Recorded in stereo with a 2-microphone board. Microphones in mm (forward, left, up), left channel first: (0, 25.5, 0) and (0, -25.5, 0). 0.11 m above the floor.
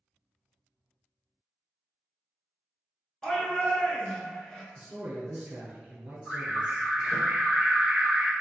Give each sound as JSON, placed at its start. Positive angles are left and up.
{"t": 3.2, "sound": "a shout", "side_deg": 10, "distance_m": 1.1}
{"t": 4.8, "sound": "a man speaking", "side_deg": -20, "distance_m": 1.5}
{"t": 6.2, "sound": "an alarm", "side_deg": 0, "distance_m": 1.6}